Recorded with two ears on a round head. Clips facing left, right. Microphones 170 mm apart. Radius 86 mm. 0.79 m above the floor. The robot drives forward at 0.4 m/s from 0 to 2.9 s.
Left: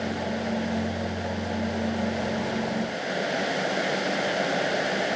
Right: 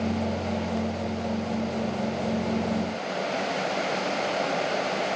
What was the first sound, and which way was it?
Only background noise.